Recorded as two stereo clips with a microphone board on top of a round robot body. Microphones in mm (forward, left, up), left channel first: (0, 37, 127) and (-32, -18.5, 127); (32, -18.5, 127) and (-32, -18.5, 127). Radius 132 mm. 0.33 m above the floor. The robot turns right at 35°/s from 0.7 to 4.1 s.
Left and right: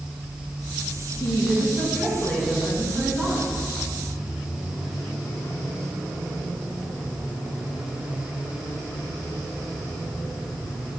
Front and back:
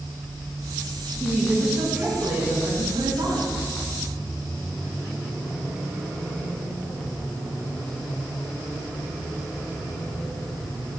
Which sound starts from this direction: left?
A woman speaking, at 1.2 s.